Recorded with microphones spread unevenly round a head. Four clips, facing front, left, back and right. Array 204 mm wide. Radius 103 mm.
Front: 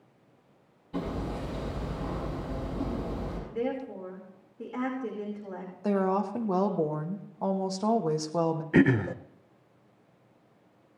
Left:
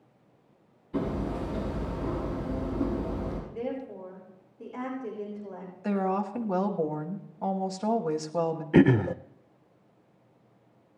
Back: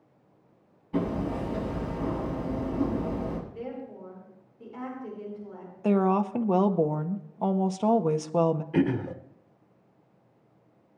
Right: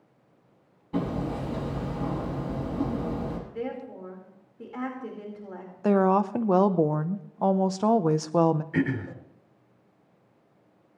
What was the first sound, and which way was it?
Hammering, 110° right.